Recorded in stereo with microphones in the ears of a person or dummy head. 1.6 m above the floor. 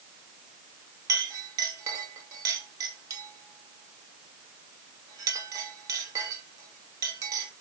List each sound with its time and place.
1.1 s a clink: 15° right (ahead or behind), 2 m